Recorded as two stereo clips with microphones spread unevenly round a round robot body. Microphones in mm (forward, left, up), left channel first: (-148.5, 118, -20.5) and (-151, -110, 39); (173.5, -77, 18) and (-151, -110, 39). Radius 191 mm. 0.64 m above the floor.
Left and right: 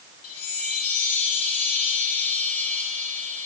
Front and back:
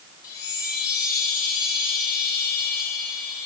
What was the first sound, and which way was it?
A chime, 85° left.